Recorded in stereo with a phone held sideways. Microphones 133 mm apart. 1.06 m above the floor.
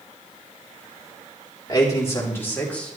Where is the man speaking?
25° left (ahead or behind), 3 m; by 3.0 s 5° left (ahead or behind), 2.5 m.